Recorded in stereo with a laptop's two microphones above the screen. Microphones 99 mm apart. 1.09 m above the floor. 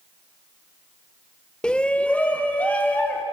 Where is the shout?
10° left (ahead or behind), 0.7 m; by 3.2 s 15° left (ahead or behind), 2.5 m.